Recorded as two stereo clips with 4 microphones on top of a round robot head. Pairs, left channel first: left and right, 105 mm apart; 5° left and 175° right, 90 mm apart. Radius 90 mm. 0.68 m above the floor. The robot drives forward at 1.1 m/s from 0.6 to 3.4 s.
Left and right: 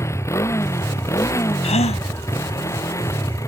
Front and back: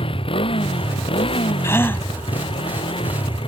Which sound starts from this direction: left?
A gasp, at 1.6 s.